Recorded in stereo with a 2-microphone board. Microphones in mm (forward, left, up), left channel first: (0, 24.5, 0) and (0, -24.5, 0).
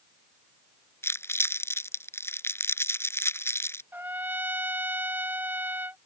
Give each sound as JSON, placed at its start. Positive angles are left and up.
{"t": 1.0, "sound": "crumpling", "side_deg": 60}
{"t": 3.9, "sound": "a trumpet", "side_deg": -40}